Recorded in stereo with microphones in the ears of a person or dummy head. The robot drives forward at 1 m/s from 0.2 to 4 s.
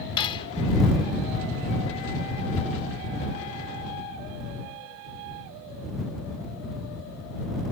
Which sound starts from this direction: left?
Cutlery clinking, at 0.2 s.